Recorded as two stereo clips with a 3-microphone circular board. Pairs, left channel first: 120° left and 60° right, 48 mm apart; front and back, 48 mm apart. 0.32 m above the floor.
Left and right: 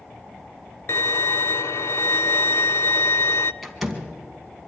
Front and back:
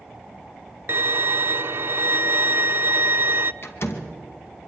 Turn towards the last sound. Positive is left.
turn(degrees=25)